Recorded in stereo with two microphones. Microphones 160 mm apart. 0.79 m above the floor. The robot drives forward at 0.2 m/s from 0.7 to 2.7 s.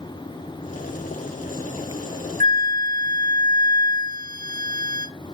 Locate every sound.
2.4 s a flute: 55° right (ahead or behind), 0.7 m; by 5.1 s 60° right (ahead or behind), 0.6 m